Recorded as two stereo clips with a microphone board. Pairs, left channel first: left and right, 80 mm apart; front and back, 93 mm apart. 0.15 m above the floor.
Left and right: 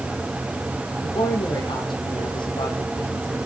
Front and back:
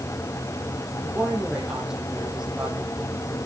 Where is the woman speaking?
95° left, 6 m.